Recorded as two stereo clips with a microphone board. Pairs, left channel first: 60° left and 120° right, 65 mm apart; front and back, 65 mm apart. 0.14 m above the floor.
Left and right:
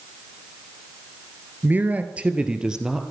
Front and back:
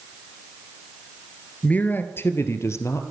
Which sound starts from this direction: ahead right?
A man speaking, at 1.6 s.